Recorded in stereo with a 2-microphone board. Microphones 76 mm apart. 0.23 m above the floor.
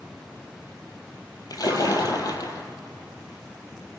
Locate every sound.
1.5 s a splash: 55° left (ahead or behind), 2.5 m